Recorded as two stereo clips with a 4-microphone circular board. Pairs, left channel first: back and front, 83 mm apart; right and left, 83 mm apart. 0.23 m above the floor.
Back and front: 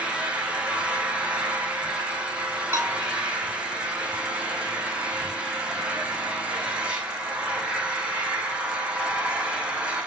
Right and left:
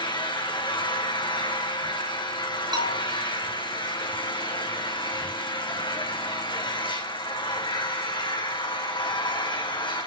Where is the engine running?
75° right, 4.5 m.